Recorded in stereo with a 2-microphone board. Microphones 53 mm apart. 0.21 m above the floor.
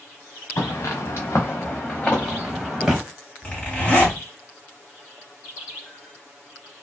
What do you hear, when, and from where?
0.6 s footsteps: 70° left (ahead or behind), 1.3 m; by 3.0 s 5° right (ahead or behind), 1.4 m
3.4 s a zipper: 20° left (ahead or behind), 1.7 m